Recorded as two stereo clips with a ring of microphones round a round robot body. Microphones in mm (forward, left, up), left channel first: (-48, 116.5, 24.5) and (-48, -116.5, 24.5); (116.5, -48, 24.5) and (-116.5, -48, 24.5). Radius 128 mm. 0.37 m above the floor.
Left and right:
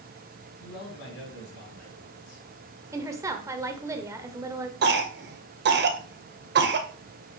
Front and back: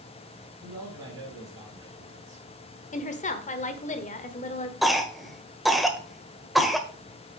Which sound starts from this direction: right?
A cough, at 4.8 s.